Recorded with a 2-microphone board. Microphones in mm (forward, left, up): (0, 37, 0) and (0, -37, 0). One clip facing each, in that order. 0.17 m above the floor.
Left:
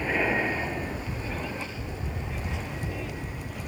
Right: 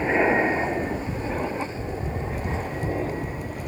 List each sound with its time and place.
0.0 s an aircraft: 25° right (ahead or behind); by 3.7 s 40° right (ahead or behind)